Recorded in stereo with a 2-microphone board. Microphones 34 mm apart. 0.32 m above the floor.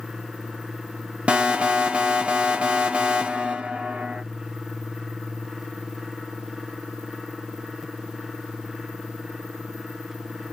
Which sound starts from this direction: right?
An alarm, at 1.3 s.